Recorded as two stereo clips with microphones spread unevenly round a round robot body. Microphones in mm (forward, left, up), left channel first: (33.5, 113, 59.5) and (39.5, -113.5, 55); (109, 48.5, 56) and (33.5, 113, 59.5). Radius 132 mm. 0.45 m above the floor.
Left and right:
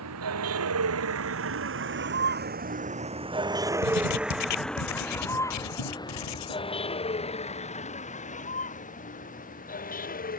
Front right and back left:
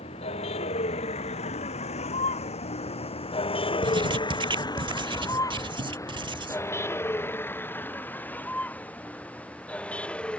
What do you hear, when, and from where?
0.0 s a vehicle: 80° right; by 10.4 s 40° left
3.8 s writing: 95° left